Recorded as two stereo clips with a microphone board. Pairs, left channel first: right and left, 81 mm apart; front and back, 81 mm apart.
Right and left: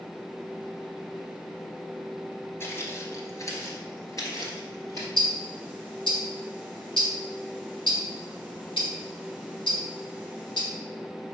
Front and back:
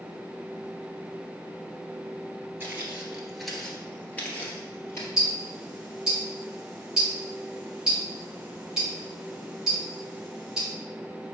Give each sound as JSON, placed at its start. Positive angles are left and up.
{"t": 2.6, "sound": "footsteps", "azimuth_deg": -130, "distance_m": 1.5}
{"t": 5.2, "sound": "ticking", "azimuth_deg": -100, "distance_m": 2.0}